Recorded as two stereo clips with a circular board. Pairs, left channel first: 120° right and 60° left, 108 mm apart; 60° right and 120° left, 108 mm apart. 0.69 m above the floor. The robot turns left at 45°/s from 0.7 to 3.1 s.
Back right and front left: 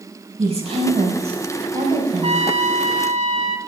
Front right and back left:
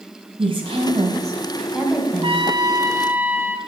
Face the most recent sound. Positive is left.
turn(degrees=45)